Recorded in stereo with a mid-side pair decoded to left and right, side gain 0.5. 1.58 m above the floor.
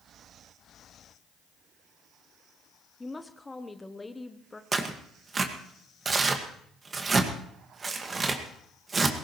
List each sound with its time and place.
3.0 s a woman speaking: 15° left, 1.0 m
4.7 s tearing paper: 35° right, 1.8 m